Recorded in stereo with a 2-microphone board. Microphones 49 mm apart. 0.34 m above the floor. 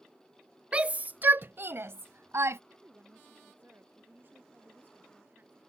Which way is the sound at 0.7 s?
20° right (ahead or behind).